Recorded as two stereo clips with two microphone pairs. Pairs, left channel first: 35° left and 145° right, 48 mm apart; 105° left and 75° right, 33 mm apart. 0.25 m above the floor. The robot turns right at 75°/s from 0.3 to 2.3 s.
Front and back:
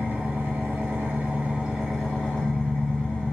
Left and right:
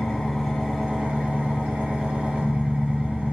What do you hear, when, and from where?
0.0 s an engine running: straight behind, 1.9 m; by 3.3 s 30° right, 1.9 m